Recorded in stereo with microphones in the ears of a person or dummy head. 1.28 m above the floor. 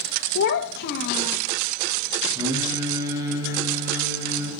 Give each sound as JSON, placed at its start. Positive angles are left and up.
{"t": 0.3, "sound": "a child speaking", "side_deg": 60, "distance_m": 0.9}
{"t": 2.4, "sound": "singing", "side_deg": -20, "distance_m": 4.0}